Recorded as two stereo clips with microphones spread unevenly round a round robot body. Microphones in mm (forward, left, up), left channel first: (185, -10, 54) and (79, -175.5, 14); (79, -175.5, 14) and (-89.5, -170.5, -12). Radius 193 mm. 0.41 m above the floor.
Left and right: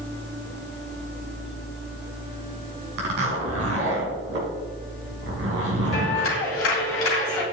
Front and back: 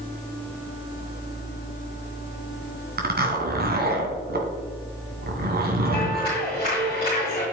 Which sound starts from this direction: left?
A clap, at 5.9 s.